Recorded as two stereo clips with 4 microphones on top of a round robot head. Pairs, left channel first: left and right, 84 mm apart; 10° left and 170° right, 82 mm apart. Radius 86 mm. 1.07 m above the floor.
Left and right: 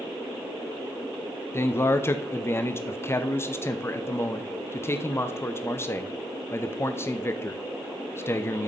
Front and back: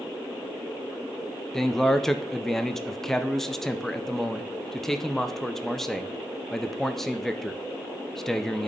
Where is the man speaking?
90° left, 0.7 m.